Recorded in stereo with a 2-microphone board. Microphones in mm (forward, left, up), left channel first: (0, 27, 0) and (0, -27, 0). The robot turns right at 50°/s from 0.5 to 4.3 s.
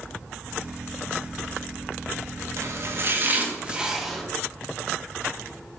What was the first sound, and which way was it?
Chopping, 55° right (ahead or behind).